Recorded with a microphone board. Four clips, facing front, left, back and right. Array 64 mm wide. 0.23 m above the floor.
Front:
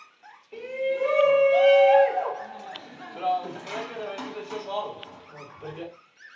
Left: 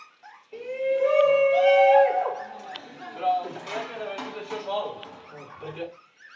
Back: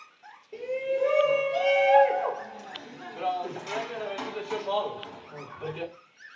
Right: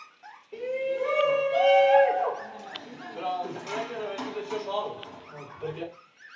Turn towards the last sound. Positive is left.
turn(degrees=150)